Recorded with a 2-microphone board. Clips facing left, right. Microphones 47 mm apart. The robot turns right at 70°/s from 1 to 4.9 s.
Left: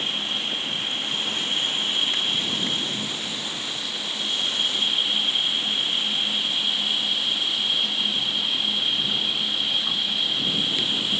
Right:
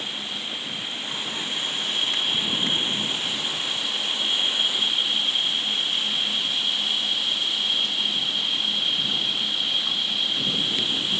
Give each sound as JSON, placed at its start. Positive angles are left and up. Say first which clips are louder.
{"t": 0.0, "sound": "an insect", "louder": "left 4 dB", "azimuth_deg": 90}